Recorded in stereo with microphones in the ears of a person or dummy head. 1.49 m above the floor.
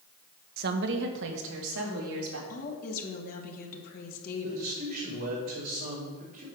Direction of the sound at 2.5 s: 55° left (ahead or behind).